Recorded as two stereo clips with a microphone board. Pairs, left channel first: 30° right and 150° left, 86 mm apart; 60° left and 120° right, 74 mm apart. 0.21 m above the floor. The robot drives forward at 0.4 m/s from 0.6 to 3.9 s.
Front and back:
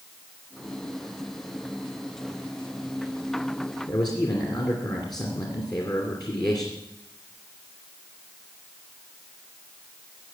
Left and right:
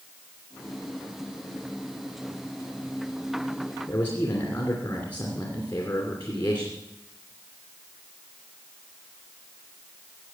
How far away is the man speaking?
About 2.5 m.